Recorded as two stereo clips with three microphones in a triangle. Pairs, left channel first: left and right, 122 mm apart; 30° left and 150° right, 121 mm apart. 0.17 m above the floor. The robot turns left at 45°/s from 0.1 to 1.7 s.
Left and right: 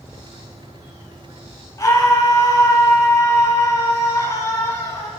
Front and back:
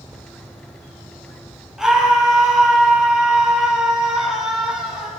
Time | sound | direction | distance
1.8 | a scream | 125° left | 1.3 m